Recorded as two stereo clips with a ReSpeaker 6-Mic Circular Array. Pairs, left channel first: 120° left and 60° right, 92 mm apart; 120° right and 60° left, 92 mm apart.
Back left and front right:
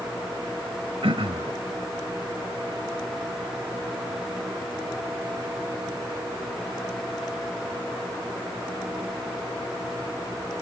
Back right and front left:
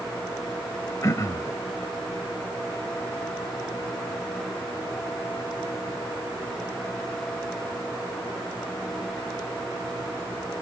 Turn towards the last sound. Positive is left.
turn(degrees=-65)